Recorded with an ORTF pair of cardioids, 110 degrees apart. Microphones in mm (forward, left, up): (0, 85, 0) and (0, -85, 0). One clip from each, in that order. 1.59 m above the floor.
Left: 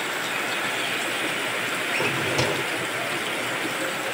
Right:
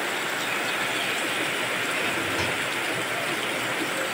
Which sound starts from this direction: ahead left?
A drawer, at 1.9 s.